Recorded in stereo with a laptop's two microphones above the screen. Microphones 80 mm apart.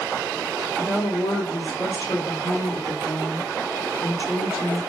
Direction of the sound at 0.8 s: 70° left (ahead or behind).